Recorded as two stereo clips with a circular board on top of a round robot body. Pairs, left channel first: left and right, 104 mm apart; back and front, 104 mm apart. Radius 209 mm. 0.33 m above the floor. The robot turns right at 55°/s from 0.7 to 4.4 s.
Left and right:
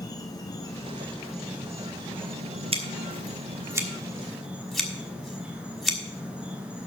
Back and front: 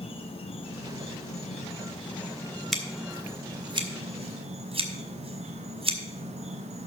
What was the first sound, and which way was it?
An insect, 145° left.